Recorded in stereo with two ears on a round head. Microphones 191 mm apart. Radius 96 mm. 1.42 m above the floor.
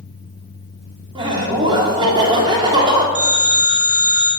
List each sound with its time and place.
1.1 s laughter: 20° right (ahead or behind), 3.5 m
3.1 s a phone ringing: 5° right (ahead or behind), 6.5 m